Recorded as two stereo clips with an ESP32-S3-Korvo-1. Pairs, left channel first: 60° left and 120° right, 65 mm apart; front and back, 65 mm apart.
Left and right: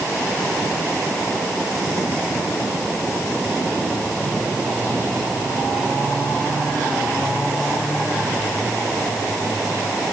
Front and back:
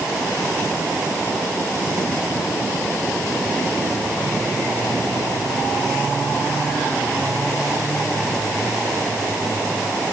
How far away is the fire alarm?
No fire alarm in this recording.